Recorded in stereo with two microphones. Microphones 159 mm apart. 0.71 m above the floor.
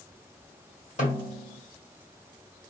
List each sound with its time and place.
1.0 s a snare drum: 50° left (ahead or behind), 1.6 m